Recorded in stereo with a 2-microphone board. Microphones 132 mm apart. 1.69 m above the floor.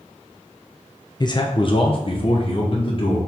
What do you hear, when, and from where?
1.2 s a man speaking: 30° left (ahead or behind), 0.6 m; by 3.2 s 45° left (ahead or behind), 1.8 m